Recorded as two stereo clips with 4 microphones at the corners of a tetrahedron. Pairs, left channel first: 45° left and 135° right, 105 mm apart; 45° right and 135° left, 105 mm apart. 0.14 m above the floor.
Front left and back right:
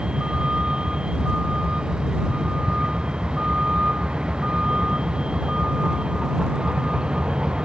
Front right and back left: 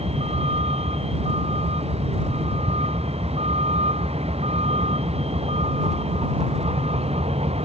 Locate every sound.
0.0 s a vehicle: 145° left